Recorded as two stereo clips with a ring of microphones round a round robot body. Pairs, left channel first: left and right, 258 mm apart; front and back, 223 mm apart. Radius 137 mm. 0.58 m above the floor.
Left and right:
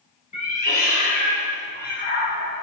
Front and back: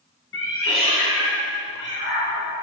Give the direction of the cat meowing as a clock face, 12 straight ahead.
11 o'clock.